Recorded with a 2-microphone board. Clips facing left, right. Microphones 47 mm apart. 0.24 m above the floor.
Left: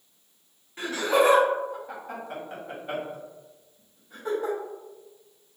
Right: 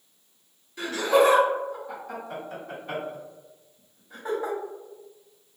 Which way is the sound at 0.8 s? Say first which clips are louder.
Right 2 dB; 40° left (ahead or behind).